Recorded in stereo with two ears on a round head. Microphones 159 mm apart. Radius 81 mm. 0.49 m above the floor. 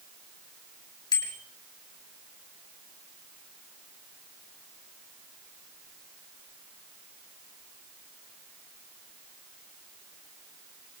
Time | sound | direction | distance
1.1 | a bicycle bell | 25° left (ahead or behind) | 6.5 m